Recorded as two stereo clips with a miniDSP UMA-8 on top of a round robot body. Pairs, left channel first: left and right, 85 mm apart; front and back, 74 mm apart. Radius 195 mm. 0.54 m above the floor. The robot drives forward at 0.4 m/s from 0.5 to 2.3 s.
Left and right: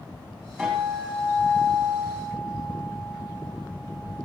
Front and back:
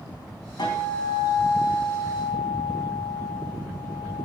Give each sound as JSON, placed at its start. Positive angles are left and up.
{"t": 0.6, "sound": "a guitar", "azimuth_deg": 0, "distance_m": 5.5}